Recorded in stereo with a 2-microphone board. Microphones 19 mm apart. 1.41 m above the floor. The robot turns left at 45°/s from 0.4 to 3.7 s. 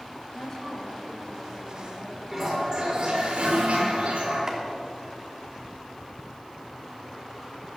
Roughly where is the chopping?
Right.